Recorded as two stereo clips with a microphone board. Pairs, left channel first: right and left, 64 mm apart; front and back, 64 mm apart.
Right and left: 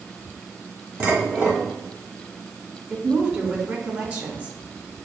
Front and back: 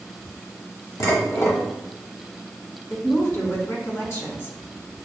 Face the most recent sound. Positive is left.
turn(degrees=30)